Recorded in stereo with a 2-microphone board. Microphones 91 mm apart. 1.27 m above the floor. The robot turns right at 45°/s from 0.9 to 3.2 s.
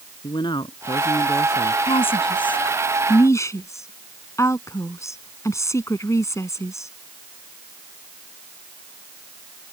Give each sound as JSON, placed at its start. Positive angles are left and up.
{"t": 0.2, "sound": "a man speaking", "azimuth_deg": 125}
{"t": 1.9, "sound": "a woman speaking", "side_deg": 85}